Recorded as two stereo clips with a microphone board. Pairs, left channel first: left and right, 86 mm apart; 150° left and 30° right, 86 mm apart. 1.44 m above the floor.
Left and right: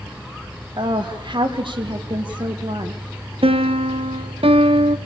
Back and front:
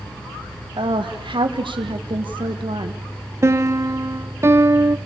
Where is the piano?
90° right, 1.0 m.